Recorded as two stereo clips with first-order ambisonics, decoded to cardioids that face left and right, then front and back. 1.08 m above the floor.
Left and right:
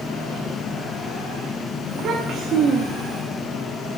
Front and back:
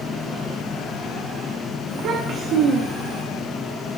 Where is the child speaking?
140° right, 1.0 m.